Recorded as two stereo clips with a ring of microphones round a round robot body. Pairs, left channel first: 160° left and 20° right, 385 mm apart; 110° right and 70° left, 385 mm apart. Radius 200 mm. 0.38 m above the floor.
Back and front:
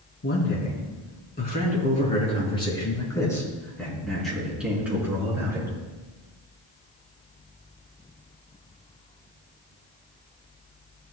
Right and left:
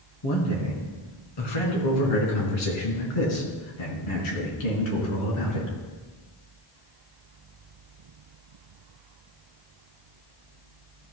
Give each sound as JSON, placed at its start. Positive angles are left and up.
{"t": 0.2, "sound": "a man speaking", "azimuth_deg": -145, "distance_m": 4.0}